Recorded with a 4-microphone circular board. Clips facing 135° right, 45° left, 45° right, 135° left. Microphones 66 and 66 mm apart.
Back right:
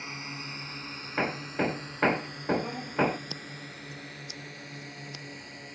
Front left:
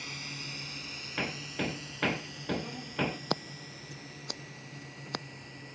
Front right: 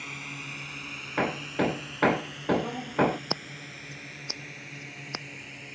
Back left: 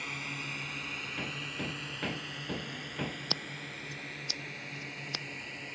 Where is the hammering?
80° right.